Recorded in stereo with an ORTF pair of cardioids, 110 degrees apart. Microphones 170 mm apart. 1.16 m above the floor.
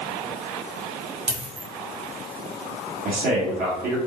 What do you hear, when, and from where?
1.3 s a dropped coin: 35° right, 1.5 m
3.0 s a man speaking: 60° right, 1.5 m